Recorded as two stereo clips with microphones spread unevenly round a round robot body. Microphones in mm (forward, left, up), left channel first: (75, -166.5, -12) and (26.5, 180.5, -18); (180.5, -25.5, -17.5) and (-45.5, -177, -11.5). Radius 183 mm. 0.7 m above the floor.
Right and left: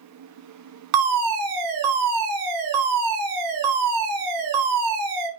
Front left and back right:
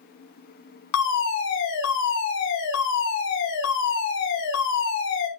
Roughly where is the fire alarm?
Left.